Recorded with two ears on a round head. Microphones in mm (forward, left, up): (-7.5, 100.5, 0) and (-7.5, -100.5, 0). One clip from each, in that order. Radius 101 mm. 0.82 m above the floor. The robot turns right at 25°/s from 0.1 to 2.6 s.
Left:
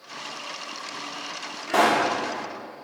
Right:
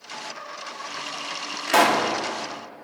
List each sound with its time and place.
1.7 s a pop: 65° right (ahead or behind), 2 m